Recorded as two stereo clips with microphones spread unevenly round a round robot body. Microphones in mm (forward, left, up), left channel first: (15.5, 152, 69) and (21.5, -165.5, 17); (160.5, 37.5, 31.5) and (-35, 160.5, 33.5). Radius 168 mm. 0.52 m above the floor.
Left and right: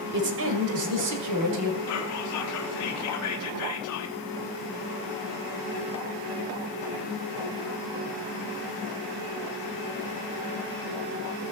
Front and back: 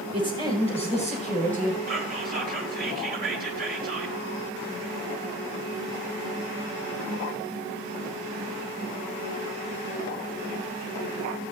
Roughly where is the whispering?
Behind left.